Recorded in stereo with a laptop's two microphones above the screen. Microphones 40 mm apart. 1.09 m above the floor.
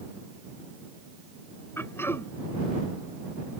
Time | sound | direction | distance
1.8 | throat clearing | 85° left | ?